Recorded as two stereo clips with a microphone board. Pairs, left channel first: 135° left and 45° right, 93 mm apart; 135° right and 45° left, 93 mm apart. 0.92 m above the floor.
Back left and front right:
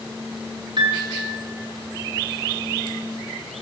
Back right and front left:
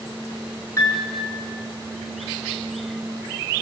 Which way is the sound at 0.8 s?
75° right.